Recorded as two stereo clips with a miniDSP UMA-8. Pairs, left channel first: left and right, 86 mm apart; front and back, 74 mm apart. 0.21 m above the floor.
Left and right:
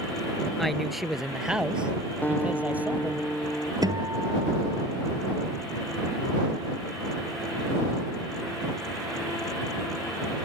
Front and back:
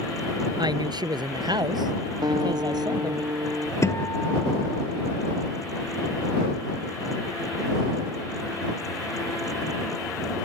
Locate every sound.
0.6 s a woman speaking: straight behind; by 3.2 s 160° right
2.2 s a guitar: 160° left
3.8 s a guitar: 50° right